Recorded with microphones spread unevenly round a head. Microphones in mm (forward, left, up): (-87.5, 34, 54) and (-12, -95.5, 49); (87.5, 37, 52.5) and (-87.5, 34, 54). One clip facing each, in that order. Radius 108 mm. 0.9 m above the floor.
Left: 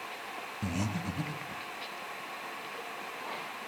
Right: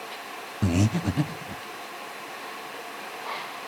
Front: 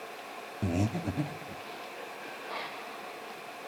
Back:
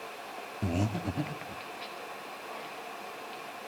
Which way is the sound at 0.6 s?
80° right.